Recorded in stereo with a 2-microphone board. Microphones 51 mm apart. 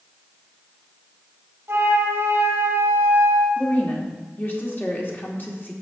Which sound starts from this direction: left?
A woman speaking, at 3.6 s.